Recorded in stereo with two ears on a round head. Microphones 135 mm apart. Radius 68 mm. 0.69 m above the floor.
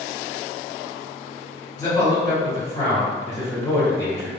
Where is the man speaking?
20° left (ahead or behind), 1.7 m.